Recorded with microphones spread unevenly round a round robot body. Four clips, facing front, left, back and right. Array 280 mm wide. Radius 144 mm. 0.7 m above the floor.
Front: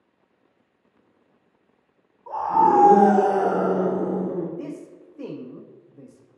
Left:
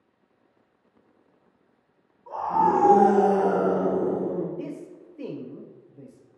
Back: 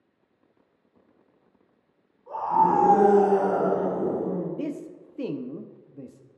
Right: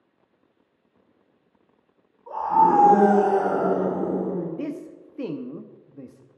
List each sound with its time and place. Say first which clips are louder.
2.3 s a scream: right 4 dB, front 3 dB; 10° left, 2.5 m; by 4.5 s 50° left, 2.5 m
4.6 s a man speaking: right 4 dB, back 2 dB; 130° right, 0.6 m